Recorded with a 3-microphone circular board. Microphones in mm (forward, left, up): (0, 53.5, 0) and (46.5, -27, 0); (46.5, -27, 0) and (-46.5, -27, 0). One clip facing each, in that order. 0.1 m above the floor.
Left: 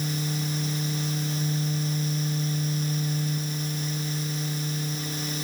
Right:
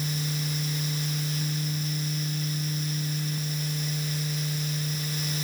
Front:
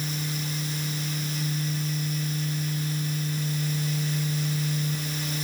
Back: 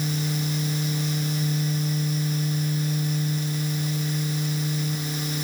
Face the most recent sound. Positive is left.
No sound to turn to.